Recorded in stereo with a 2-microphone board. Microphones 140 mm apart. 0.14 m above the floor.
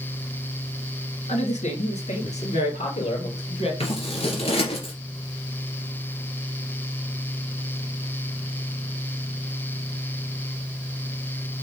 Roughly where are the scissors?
Left.